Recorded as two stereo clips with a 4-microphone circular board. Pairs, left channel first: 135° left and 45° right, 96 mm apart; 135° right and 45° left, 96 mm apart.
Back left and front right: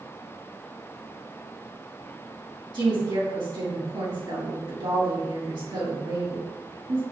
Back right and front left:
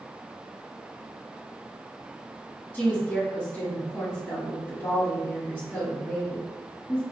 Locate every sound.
2.7 s a woman speaking: 70° right, 2.0 m